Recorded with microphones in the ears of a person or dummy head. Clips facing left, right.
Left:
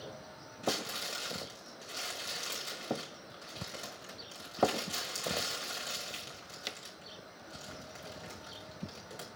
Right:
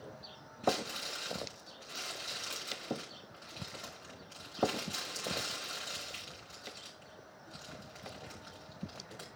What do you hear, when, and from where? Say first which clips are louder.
0.6 s crumpling: right 3 dB; 40° left (ahead or behind), 6.5 m